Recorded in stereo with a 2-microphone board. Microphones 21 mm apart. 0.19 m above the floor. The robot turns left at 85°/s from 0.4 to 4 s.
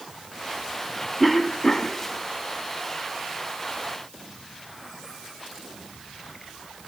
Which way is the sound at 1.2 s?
Straight behind.